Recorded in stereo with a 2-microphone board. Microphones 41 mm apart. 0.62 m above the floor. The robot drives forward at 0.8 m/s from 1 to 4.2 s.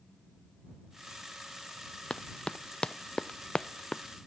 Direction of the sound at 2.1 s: 25° left (ahead or behind).